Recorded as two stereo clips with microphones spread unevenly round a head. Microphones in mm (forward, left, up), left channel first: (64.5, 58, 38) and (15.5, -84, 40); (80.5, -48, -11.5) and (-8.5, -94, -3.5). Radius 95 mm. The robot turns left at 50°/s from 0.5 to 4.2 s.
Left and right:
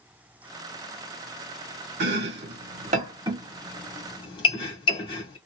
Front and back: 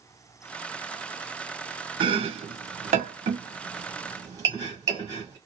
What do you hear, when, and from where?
2.0 s chopping: 115° right, 1.6 m; by 5.4 s 135° left, 1.6 m